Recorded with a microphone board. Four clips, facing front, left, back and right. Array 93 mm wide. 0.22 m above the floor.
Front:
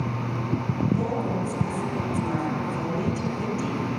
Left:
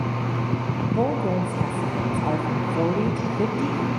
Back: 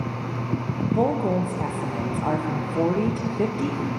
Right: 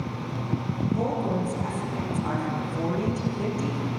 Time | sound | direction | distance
0.9 | a woman speaking | 150° left | 5 m